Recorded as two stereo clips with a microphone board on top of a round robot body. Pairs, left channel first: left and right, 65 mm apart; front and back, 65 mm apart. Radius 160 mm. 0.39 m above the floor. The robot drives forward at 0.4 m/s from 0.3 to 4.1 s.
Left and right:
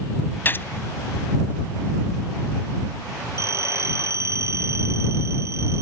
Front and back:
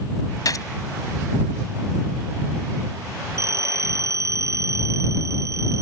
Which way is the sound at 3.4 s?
135° right.